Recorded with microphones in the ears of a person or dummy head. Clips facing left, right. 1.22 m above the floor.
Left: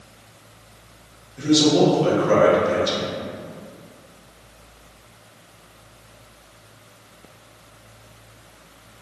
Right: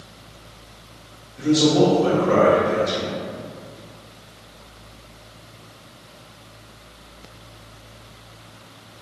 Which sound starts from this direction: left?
A man speaking, at 1.4 s.